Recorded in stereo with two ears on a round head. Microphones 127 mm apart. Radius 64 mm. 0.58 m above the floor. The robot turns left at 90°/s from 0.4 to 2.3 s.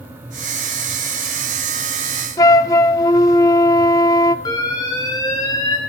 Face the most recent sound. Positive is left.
turn(degrees=30)  # may be behind; listen again after turning